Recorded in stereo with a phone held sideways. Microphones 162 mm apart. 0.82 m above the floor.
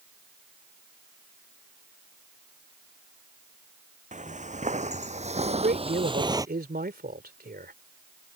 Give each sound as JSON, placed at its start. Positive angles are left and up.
{"t": 4.1, "sound": "footsteps", "side_deg": -50}
{"t": 5.5, "sound": "a man speaking", "side_deg": -75}